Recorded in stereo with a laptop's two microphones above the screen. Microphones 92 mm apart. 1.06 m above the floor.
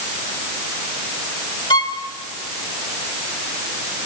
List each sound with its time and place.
1.7 s a violin: 65° left (ahead or behind), 2.5 m